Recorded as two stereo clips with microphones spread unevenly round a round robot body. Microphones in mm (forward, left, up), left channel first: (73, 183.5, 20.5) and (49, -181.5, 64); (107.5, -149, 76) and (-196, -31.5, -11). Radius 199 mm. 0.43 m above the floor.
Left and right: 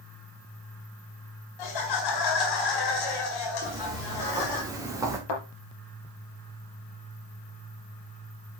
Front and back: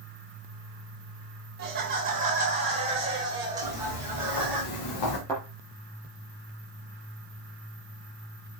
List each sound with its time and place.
1.6 s laughter: 100° left, 3.5 m; by 4.6 s 75° left, 4.5 m
3.6 s footsteps: 15° right, 4 m; by 5.2 s 10° right, 3 m
5.3 s a thud: 65° left, 4 m